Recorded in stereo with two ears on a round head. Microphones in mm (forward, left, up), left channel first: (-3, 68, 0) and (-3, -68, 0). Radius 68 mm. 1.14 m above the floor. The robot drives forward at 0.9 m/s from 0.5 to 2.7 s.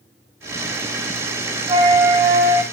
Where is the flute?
30° right (ahead or behind), 3.5 m; by 2.6 s 25° right (ahead or behind), 4.5 m.